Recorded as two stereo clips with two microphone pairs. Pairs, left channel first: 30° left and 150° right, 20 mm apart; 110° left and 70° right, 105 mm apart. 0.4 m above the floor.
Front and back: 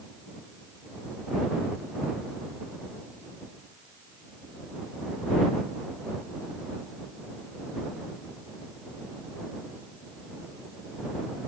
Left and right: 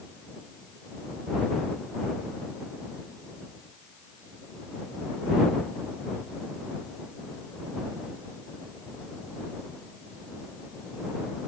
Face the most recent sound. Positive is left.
No sound to turn to.